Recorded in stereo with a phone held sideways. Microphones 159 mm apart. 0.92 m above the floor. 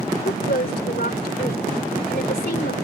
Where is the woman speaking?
80° left.